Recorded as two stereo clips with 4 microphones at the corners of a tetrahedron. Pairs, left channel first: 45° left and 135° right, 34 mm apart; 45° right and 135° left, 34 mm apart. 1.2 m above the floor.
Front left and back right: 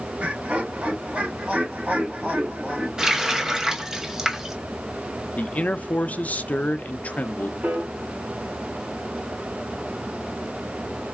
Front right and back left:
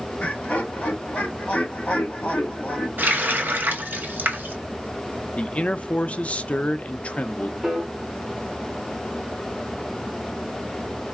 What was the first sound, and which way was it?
Laughter, 90° right.